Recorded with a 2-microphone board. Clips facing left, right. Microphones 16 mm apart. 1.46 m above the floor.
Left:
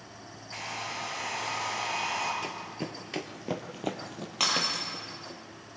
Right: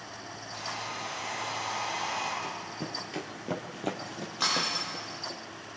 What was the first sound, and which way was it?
A hair dryer, 70° left (ahead or behind).